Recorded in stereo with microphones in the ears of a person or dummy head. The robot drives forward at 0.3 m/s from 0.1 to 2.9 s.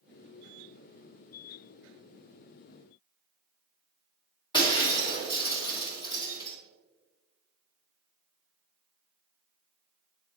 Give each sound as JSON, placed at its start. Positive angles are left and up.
{"t": 4.5, "sound": "breaking glass", "side_deg": 25, "distance_m": 1.7}